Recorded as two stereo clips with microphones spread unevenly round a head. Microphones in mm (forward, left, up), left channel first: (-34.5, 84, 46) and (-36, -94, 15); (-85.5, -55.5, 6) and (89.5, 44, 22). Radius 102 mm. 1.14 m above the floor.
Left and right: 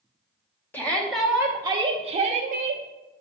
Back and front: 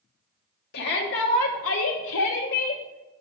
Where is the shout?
170° left, 1.0 m; by 2.8 s 115° right, 0.9 m.